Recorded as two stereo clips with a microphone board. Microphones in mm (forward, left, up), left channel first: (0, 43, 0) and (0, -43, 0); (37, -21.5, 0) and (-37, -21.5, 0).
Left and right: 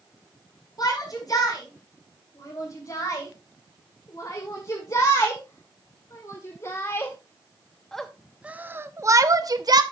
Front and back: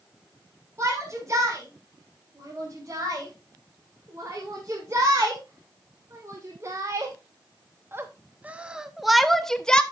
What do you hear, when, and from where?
0.8 s a shout: 130° left, 4.5 m; by 9.8 s 75° right, 1.1 m